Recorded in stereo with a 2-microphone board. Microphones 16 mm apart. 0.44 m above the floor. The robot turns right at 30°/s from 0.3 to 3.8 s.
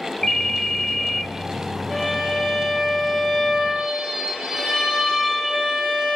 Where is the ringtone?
25° left (ahead or behind), 0.7 m; by 1.3 s centre (ahead or behind), 0.7 m.